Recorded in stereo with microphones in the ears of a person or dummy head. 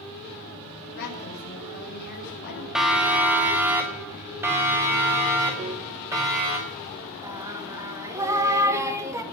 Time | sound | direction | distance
1.0 | a woman speaking | 50° left (ahead or behind) | 6 m
2.8 | a siren | centre (ahead or behind) | 2 m
5.6 | a piano | 40° right (ahead or behind) | 0.7 m
7.2 | singing | 20° right (ahead or behind) | 1.7 m